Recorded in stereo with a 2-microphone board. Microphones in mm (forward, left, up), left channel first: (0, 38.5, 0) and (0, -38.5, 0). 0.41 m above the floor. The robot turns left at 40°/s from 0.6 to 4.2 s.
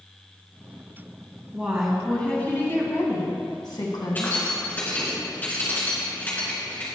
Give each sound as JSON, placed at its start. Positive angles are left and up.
{"t": 1.5, "sound": "a woman speaking", "azimuth_deg": -165, "distance_m": 2.5}
{"t": 4.2, "sound": "keys jangling", "side_deg": 25, "distance_m": 3.0}